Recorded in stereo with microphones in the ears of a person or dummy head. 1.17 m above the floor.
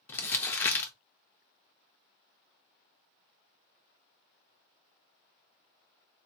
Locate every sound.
0.1 s crumpling: 10° left (ahead or behind), 0.7 m